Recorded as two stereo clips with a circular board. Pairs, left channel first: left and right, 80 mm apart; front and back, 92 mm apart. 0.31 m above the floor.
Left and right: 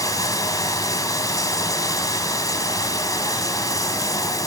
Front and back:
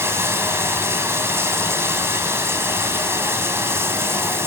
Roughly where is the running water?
Behind left.